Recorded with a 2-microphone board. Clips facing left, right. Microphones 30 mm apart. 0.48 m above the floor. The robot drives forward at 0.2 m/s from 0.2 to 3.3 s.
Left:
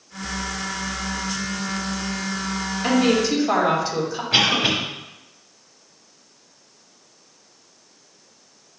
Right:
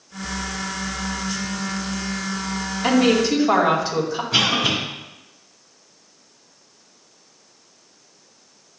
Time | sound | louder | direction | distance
2.8 | a woman speaking | right 2 dB | 10° right (ahead or behind) | 2 m
4.3 | a cough | left 1 dB | 40° left (ahead or behind) | 3 m